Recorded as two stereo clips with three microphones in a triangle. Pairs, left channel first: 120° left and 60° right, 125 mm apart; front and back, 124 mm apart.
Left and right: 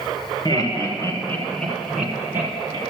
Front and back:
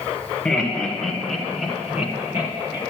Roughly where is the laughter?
Left.